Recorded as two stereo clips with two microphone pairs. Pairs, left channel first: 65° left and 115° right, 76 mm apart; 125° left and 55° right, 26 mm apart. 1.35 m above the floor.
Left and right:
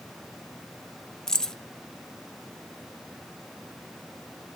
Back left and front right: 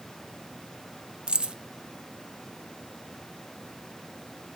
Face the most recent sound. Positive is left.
turn(degrees=-15)